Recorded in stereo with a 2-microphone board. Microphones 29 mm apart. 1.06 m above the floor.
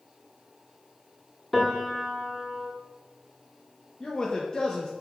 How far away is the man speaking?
About 0.5 m.